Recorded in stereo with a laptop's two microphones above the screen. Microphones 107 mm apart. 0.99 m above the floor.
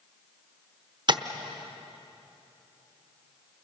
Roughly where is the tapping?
Right.